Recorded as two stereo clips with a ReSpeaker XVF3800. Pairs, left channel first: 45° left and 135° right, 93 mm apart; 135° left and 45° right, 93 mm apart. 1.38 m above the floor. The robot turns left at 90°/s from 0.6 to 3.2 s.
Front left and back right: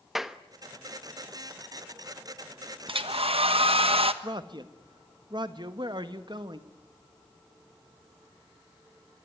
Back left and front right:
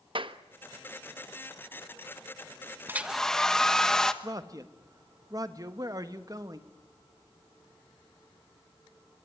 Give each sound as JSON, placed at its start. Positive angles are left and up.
{"t": 0.1, "sound": "a clap", "azimuth_deg": -50, "distance_m": 1.0}
{"t": 2.9, "sound": "a hair dryer", "azimuth_deg": -110, "distance_m": 1.2}
{"t": 4.2, "sound": "a man speaking", "azimuth_deg": -95, "distance_m": 1.5}